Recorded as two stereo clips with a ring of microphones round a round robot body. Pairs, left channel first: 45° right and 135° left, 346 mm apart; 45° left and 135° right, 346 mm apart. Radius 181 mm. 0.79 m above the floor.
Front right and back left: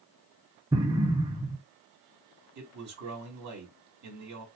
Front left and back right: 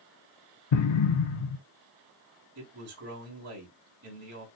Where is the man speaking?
Straight behind, 3 m.